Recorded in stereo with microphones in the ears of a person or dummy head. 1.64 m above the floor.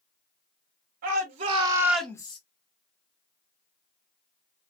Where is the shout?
45° right (ahead or behind), 1.6 m; by 2.4 s 30° left (ahead or behind), 1.0 m.